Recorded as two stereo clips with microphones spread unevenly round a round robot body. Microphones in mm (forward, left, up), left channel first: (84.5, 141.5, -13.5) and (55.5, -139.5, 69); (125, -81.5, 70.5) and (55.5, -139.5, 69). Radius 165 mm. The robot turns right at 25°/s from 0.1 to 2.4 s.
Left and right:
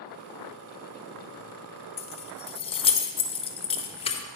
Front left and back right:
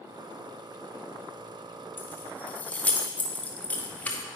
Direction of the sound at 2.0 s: 95° left.